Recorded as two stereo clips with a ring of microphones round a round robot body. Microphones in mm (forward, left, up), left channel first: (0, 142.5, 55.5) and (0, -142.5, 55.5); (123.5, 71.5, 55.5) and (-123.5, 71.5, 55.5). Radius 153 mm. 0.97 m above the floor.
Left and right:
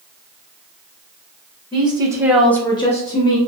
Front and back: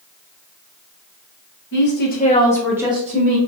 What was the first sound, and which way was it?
A woman speaking, 20° right.